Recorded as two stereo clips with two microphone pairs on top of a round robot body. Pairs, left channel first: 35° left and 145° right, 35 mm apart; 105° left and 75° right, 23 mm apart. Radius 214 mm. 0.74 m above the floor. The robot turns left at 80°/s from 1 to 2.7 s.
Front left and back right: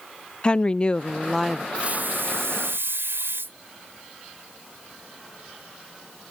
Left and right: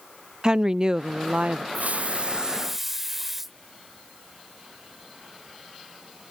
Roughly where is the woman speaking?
Ahead right.